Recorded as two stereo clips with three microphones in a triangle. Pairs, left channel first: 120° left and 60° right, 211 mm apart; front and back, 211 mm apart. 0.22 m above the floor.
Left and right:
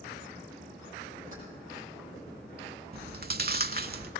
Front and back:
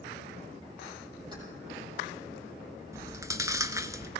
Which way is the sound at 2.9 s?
105° right.